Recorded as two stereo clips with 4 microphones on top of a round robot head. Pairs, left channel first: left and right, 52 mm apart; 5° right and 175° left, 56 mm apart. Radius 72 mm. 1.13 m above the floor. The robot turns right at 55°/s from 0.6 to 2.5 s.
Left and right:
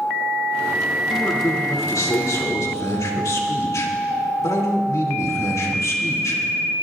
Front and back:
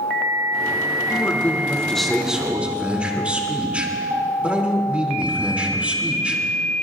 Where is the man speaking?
25° left, 3 m; by 6.4 s 105° left, 3 m.